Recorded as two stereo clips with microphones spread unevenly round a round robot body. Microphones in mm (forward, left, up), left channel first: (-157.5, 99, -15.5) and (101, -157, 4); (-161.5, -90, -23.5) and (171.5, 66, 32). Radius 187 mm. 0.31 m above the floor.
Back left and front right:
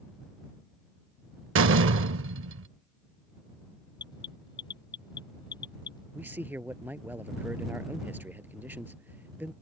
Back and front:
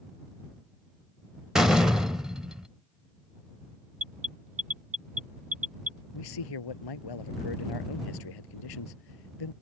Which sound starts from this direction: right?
A door slam, at 1.6 s.